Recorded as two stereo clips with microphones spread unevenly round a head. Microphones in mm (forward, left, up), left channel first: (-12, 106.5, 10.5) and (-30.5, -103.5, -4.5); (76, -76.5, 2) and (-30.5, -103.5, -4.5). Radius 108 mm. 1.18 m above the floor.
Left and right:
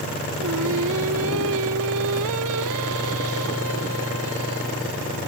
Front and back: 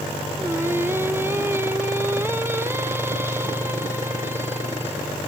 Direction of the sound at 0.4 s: 95° right.